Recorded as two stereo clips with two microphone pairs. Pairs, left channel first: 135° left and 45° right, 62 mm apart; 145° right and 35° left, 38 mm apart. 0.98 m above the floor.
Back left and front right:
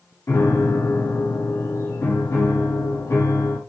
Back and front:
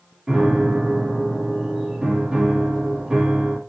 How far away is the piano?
About 1.9 m.